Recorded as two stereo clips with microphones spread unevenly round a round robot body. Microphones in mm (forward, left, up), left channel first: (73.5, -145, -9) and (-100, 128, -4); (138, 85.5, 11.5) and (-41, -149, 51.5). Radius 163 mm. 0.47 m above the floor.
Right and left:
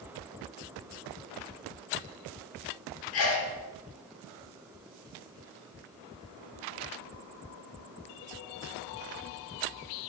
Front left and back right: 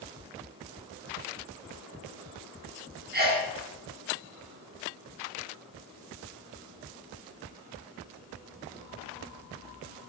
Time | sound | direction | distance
3.1 | a sneeze | 70° right | 0.9 m